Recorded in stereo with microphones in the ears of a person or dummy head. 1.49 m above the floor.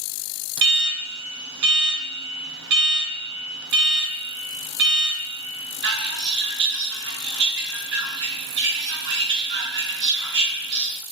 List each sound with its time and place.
0.6 s an alarm: 55° right (ahead or behind), 1.5 m